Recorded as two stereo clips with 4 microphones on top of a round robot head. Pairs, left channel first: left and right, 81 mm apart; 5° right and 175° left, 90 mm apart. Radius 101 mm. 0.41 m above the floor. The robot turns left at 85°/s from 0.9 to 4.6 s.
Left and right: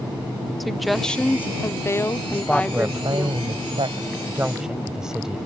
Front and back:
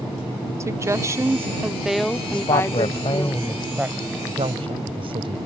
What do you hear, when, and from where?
0.6 s a woman speaking: straight behind; by 3.3 s 25° right
2.3 s a woman speaking: 25° left; by 5.4 s 170° right